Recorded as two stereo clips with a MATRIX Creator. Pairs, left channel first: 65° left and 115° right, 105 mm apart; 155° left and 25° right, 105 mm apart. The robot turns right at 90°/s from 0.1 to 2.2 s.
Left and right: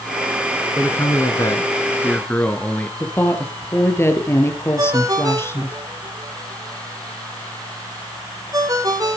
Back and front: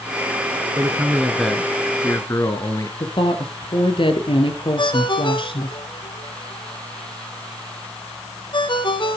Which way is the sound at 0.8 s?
5° left.